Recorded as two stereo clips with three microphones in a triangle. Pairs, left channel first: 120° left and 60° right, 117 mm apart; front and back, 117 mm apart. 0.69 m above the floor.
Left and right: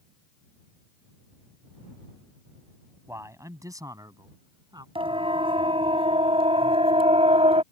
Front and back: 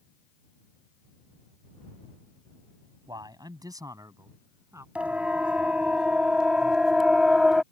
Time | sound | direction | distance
3.1 | a man speaking | 125° right | ?
5.0 | a siren | 100° right | ?